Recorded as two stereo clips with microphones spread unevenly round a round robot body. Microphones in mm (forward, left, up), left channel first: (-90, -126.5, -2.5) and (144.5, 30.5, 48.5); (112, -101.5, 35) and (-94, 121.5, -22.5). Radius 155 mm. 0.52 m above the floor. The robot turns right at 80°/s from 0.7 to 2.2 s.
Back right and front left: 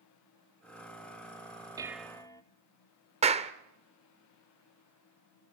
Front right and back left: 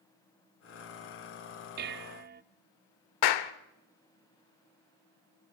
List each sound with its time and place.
1.8 s dishes clattering: 120° left, 0.7 m; by 2.4 s 150° left, 0.7 m
3.2 s a clap: 40° right, 1.1 m